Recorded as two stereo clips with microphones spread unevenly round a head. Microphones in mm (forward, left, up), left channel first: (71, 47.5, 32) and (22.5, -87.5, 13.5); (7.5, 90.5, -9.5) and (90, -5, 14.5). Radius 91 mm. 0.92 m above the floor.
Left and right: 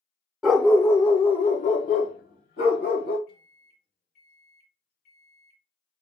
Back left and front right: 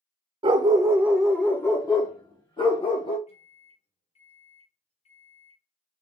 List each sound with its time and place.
0.4 s a dog barking: 20° right, 0.9 m; by 3.2 s 85° left, 1.8 m
3.3 s a microwave: 100° left, 1.6 m